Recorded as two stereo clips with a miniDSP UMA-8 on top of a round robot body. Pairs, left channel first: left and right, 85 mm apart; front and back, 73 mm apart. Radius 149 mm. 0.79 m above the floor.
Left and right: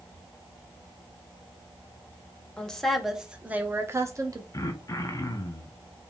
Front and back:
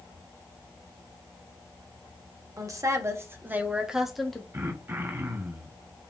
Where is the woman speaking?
165° left, 1.0 m; by 4.4 s 80° right, 1.0 m.